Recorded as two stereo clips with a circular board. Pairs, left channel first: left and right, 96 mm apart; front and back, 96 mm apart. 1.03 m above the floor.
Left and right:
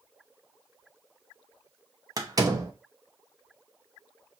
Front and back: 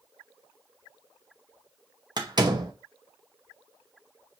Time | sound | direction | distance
2.2 | a door slam | 140° right | 0.9 m